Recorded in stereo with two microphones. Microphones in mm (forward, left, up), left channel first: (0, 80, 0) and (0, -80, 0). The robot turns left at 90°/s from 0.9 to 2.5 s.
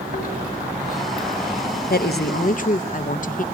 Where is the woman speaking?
110° left, 0.9 m; by 3.4 s 55° left, 0.9 m.